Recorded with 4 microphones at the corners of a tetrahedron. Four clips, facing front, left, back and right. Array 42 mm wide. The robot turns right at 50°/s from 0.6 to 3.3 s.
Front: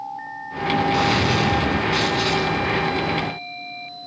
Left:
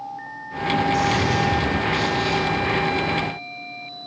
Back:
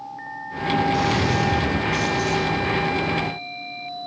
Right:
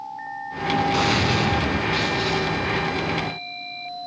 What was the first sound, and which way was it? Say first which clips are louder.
A gunshot: even, front 2 dB; 55° right.